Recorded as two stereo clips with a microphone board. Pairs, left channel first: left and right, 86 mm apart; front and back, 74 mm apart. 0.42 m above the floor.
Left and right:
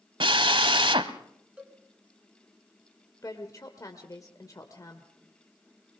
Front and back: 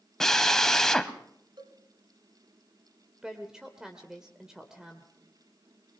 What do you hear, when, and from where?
0.2 s a drill: 85° right, 1.0 m
1.6 s a cowbell: 165° right, 1.6 m
3.2 s a woman speaking: 105° left, 1.6 m